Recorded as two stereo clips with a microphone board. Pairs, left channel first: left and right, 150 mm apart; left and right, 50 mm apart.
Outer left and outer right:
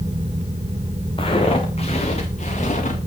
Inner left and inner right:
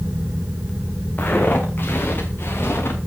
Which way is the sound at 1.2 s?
35° left (ahead or behind).